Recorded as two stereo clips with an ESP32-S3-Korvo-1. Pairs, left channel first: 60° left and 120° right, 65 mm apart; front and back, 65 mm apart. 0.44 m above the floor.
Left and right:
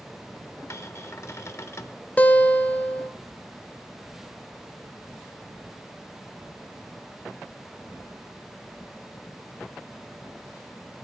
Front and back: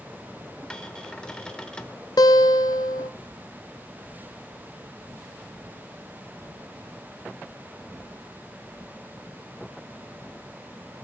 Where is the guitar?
10° right, 0.6 m.